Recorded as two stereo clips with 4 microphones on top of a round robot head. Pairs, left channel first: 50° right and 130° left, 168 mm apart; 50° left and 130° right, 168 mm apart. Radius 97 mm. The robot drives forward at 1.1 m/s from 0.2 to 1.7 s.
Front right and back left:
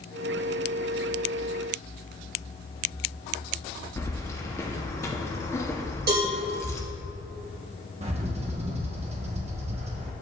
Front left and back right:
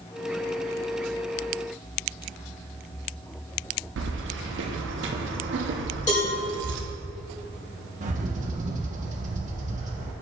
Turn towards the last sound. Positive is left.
turn(degrees=-175)